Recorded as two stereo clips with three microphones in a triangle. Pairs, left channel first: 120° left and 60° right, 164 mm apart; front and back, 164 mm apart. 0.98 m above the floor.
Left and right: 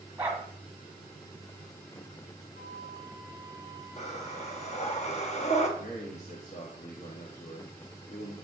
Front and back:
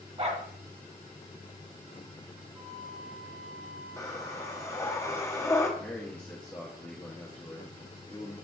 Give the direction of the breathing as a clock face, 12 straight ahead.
10 o'clock.